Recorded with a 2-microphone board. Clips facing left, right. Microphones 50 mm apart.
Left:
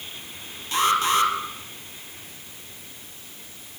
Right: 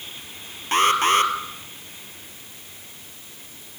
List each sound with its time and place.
0.7 s an alarm: 45° right (ahead or behind), 2.5 m